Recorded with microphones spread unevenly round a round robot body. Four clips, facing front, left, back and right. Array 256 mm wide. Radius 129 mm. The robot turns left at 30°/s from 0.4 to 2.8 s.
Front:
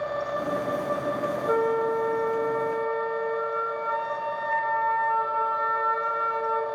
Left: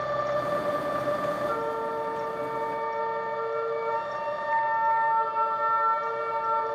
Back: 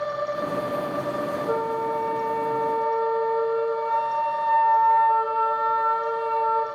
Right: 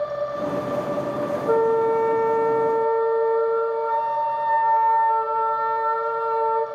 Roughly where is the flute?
Right.